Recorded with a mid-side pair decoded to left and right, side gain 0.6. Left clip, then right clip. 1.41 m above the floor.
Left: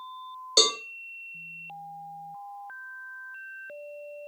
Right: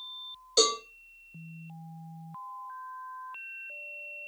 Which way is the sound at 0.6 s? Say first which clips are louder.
Left 3 dB; 40° left.